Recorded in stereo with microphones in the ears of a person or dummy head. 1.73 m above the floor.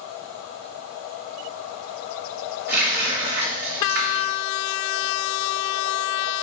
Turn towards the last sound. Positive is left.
turn(degrees=-60)  # may be behind; listen again after turning